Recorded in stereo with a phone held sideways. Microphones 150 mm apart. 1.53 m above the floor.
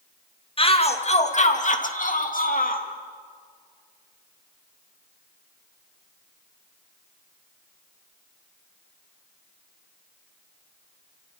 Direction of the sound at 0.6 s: 35° left (ahead or behind).